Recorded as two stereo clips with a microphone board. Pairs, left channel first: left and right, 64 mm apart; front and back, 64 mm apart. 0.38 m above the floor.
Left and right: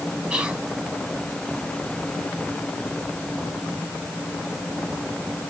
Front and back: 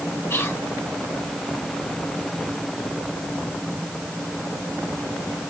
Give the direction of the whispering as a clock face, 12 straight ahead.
1 o'clock.